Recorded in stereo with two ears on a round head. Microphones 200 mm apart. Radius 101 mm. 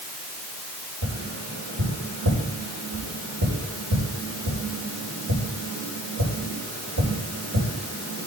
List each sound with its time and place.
1.0 s tapping: 75° right (ahead or behind), 5 m